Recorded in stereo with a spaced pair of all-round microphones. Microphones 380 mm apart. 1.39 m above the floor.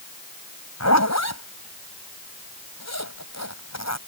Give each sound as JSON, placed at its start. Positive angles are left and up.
{"t": 0.8, "sound": "a zipper", "side_deg": 45}